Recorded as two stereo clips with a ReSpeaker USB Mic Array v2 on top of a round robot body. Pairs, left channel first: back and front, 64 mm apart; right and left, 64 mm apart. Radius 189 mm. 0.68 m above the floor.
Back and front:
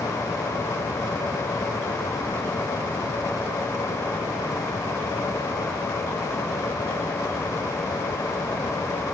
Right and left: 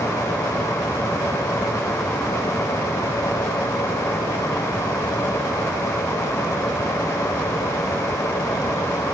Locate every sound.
Only background noise.